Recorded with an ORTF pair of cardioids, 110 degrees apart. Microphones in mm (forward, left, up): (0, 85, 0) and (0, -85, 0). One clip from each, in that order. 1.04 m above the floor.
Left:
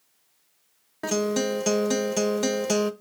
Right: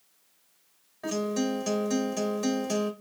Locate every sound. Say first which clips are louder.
1.0 s a guitar: left 5 dB; 55° left, 0.8 m